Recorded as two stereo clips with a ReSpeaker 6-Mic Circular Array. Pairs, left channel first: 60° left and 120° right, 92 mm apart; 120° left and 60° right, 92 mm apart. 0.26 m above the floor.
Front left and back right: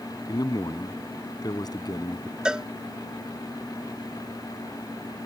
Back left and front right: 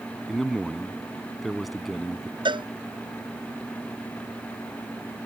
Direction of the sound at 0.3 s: 30° left.